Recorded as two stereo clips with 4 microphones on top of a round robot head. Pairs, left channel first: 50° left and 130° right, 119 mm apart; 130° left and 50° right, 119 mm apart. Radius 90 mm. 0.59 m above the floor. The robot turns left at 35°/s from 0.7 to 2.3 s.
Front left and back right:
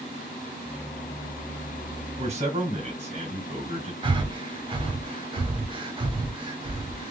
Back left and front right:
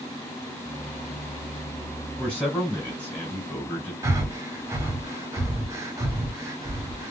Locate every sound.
2.2 s a man speaking: 145° right, 2 m; by 3.9 s 150° right, 2 m
4.0 s breathing: 105° right, 1.2 m